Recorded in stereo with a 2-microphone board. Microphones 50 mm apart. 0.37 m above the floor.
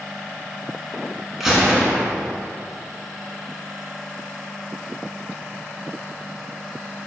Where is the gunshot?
5° right (ahead or behind), 0.6 m.